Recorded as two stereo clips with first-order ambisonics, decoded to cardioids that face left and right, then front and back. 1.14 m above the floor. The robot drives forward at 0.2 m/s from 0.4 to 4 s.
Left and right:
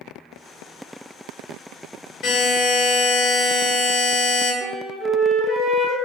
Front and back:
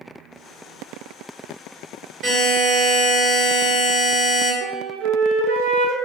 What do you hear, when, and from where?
2.2 s a buzzer: 125° left, 1.8 m; by 4.5 s 135° left, 2.0 m
4.6 s a flute: 175° right, 0.5 m